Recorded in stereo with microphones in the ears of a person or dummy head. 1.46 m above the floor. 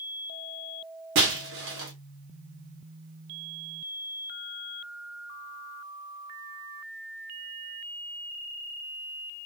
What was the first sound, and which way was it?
Breaking glass, 60° right (ahead or behind).